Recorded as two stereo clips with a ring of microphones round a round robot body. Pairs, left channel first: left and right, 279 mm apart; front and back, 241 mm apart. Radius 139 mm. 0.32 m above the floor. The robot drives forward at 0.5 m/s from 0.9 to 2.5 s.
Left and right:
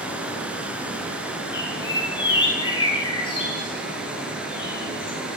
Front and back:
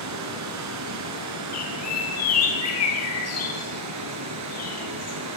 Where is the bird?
15° left, 7 m.